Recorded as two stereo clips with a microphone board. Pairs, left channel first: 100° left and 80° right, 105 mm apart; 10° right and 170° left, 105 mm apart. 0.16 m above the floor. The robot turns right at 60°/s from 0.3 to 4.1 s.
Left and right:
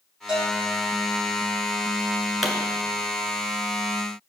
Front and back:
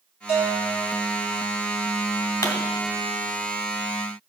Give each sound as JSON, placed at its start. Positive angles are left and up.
{"t": 0.3, "sound": "a bell", "azimuth_deg": 5, "distance_m": 4.0}
{"t": 2.4, "sound": "a pop", "azimuth_deg": 10, "distance_m": 1.7}